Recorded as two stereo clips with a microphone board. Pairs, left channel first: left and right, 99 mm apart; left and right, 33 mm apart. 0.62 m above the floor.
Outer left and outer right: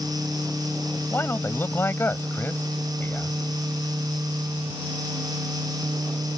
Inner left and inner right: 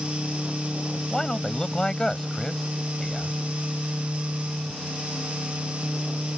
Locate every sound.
1.1 s a man speaking: 25° left (ahead or behind)